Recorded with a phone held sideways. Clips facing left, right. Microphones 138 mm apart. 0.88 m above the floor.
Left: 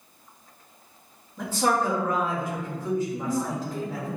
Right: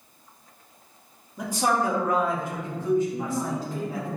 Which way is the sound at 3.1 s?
10° right (ahead or behind).